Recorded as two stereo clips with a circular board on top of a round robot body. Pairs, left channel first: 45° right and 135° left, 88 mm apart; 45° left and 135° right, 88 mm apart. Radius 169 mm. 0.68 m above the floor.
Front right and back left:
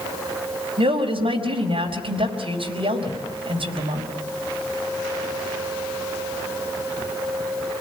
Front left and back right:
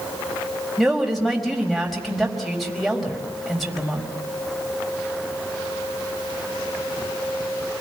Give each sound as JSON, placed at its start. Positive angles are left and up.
{"t": 0.8, "sound": "a woman speaking", "azimuth_deg": 135, "distance_m": 4.5}